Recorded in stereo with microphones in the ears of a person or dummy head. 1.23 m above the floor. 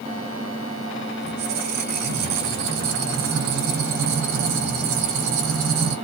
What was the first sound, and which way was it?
A squeak, 65° right (ahead or behind).